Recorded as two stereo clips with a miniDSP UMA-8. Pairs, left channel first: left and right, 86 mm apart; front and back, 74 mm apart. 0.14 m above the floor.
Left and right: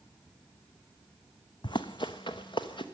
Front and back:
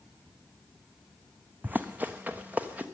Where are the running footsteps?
115° left, 0.6 m; by 2.9 s 110° left, 1.5 m.